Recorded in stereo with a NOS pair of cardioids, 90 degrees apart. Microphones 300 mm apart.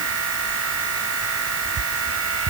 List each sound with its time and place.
0.0 s a machine running: 50° right